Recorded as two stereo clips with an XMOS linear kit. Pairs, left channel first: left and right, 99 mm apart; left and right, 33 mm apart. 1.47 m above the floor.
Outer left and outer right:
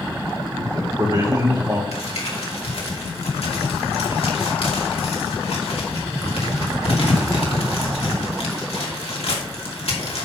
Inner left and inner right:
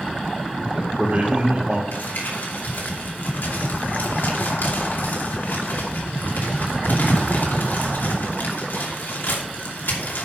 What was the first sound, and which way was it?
A man speaking, 40° right (ahead or behind).